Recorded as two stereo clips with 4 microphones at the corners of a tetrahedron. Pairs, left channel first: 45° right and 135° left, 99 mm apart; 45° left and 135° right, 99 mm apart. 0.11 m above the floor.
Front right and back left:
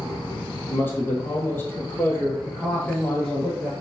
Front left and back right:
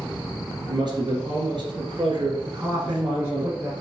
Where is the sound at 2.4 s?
115° right, 1.2 m.